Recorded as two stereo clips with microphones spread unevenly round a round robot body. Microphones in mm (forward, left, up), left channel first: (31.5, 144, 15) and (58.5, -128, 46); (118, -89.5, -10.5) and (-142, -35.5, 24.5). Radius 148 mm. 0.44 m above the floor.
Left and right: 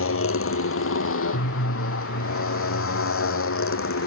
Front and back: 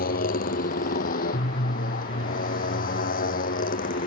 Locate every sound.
0.0 s a motorcycle: 55° left